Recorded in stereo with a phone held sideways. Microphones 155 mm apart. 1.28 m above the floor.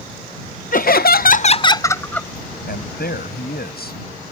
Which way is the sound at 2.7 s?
85° left.